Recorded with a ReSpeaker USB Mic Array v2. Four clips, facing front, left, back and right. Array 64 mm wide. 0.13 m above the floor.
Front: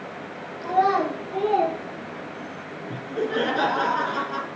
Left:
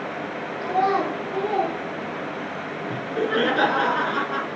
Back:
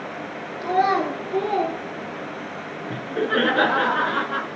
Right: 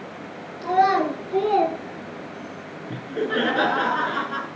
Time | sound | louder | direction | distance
0.6 | a child speaking | right 3 dB, even | 145° right | 2.0 m
2.9 | laughter | left 1 dB, back 3 dB | 175° right | 1.3 m